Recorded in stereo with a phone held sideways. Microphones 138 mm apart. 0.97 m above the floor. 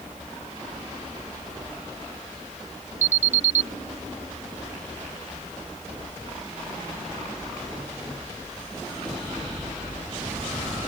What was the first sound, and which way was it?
An alarm, 60° right (ahead or behind).